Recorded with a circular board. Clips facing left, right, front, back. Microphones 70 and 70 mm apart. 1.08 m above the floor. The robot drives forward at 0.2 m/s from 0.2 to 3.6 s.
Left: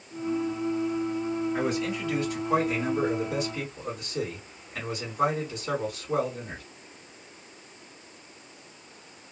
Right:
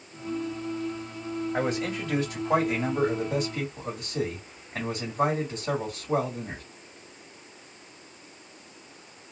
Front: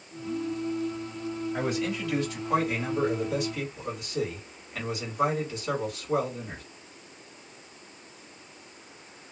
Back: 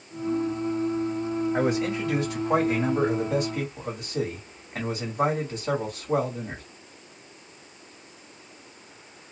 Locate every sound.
1.5 s a man speaking: 135° right, 1.7 m; by 6.6 s 145° right, 2.0 m